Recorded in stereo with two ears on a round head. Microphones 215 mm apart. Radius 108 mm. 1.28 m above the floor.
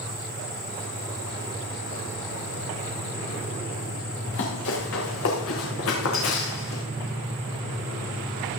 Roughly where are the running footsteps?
Left.